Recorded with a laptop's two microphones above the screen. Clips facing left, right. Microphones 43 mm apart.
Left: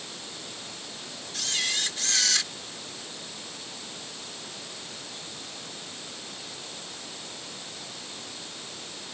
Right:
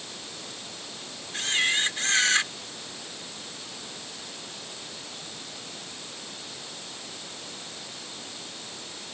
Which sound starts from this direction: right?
A camera shutter, at 1.3 s.